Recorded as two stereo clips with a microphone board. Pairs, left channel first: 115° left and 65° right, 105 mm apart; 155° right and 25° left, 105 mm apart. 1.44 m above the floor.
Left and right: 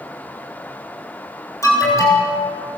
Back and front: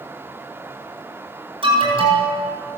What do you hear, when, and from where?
1.6 s an alarm: 55° left, 7 m